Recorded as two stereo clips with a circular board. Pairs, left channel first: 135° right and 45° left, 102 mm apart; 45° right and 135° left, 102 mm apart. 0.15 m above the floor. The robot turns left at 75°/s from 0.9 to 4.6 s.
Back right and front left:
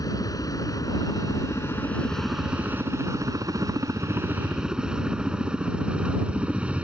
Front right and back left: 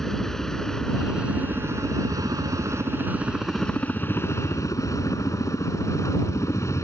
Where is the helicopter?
130° right; by 6.8 s 20° right.